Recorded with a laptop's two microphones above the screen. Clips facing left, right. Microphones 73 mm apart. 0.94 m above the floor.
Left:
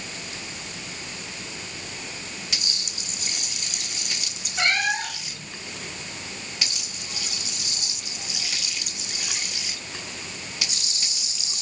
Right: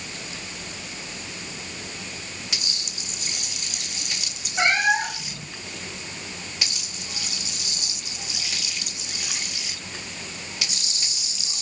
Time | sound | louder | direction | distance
4.6 | a cat meowing | right 4 dB | 15° right (ahead or behind) | 0.9 m